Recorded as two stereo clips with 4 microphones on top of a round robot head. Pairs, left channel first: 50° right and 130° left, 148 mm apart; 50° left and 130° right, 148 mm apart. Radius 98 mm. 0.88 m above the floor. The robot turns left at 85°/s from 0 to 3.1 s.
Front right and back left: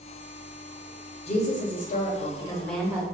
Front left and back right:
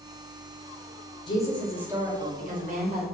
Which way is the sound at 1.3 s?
10° right.